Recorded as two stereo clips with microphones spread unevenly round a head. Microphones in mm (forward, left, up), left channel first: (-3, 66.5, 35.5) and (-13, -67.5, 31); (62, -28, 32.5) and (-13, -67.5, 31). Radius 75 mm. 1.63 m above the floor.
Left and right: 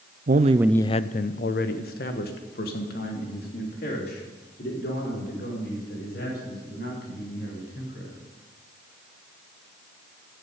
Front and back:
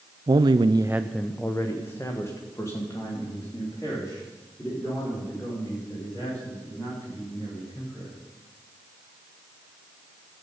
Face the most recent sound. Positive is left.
turn(degrees=95)